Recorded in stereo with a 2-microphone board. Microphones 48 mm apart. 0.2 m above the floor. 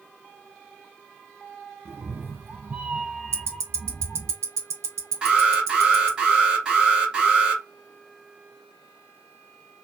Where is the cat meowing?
60° right (ahead or behind), 0.7 m; by 4.3 s 25° left (ahead or behind), 0.9 m.